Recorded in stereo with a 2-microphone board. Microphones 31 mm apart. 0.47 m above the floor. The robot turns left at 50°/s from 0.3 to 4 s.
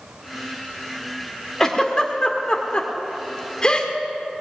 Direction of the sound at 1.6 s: 20° left (ahead or behind).